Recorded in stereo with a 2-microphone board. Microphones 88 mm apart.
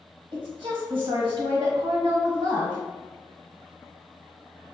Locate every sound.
0.3 s a woman speaking: 70° right (ahead or behind), 1.4 m